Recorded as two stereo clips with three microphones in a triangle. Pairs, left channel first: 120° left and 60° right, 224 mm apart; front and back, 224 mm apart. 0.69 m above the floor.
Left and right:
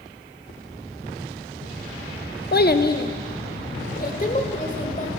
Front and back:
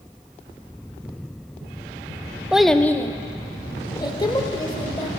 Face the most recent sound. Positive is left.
turn(degrees=70)